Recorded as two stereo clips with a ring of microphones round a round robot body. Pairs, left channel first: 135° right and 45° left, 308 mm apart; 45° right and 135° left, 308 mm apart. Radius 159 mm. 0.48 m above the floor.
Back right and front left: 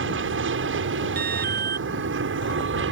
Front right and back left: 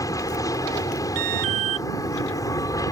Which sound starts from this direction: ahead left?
An aircraft, at 0.0 s.